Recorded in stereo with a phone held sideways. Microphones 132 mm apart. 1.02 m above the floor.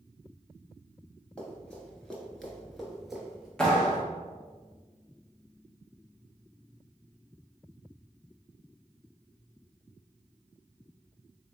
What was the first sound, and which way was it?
Running footsteps, 10° left (ahead or behind).